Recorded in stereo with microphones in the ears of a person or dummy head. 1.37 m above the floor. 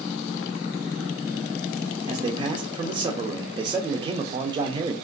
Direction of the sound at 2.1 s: 20° right (ahead or behind).